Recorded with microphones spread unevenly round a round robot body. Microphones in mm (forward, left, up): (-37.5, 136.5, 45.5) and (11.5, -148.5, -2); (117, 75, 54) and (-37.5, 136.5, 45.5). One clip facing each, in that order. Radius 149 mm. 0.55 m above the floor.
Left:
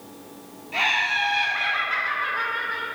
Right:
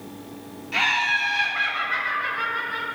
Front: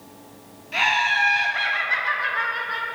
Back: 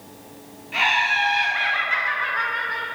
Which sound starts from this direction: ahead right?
Laughter, at 0.7 s.